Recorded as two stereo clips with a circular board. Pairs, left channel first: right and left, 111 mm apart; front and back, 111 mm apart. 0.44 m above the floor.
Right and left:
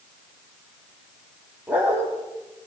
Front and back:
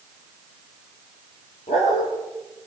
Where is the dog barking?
15° left, 6.5 m.